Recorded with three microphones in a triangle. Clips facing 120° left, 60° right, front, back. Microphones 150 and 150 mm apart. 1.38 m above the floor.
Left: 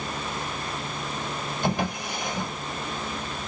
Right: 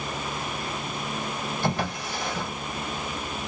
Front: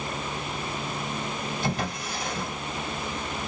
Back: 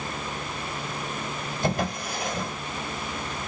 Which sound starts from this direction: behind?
A drawer, at 1.6 s.